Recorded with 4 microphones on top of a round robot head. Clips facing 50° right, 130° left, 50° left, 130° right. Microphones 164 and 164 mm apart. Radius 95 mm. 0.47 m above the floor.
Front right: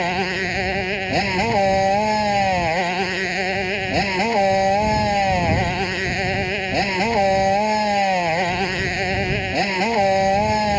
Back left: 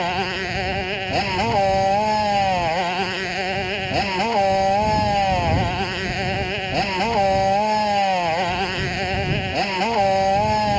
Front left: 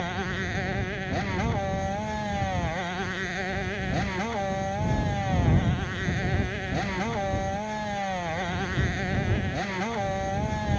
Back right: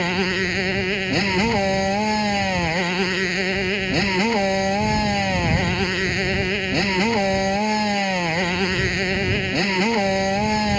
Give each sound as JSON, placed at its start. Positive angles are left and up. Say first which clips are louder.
{"t": 0.0, "sound": "a motorcycle", "louder": "front right 1 dB, back right 9 dB", "azimuth_deg": -125}